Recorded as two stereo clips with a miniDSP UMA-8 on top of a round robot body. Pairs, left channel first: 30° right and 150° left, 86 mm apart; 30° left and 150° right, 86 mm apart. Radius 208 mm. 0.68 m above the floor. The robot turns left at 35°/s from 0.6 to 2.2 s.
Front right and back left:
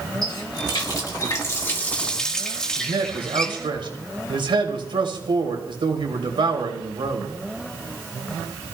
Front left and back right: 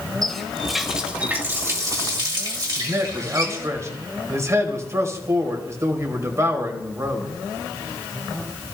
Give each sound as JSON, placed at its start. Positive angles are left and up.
{"t": 0.2, "sound": "a running tap", "azimuth_deg": -55, "distance_m": 2.5}
{"t": 2.8, "sound": "a man speaking", "azimuth_deg": 160, "distance_m": 3.0}